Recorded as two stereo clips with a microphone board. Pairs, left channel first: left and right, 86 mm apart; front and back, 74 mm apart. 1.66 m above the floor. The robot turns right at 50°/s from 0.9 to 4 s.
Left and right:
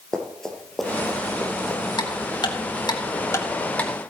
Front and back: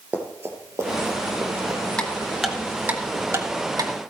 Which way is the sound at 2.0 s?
70° left.